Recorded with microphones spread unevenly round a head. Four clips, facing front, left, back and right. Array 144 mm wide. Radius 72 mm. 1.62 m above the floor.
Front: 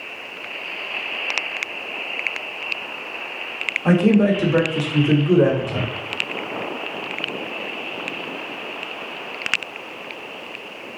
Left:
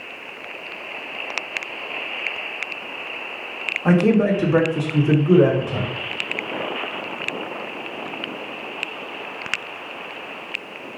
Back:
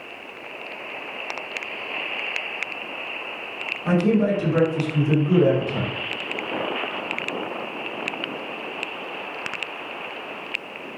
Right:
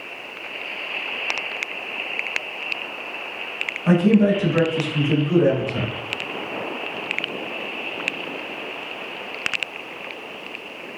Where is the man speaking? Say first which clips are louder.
Even, front 4 dB; 50° left, 2.5 m.